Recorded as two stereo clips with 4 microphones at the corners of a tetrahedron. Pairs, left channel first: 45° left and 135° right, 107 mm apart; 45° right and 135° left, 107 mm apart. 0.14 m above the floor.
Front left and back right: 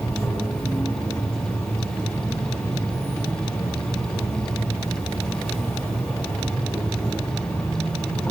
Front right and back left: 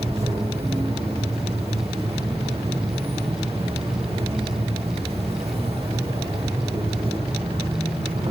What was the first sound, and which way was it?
An insect, 125° left.